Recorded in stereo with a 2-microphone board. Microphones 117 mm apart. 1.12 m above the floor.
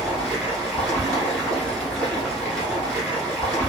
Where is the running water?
5° left (ahead or behind), 1.2 m.